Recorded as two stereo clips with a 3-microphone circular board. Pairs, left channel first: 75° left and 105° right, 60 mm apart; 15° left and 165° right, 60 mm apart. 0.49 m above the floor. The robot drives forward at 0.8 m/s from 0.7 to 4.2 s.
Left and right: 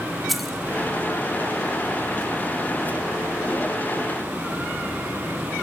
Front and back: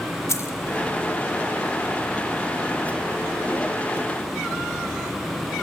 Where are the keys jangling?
15° right, 1.1 m.